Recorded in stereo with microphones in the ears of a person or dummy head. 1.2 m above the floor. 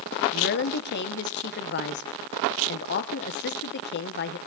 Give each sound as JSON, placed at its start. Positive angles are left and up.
{"t": 0.3, "sound": "a woman speaking", "side_deg": 45, "distance_m": 0.9}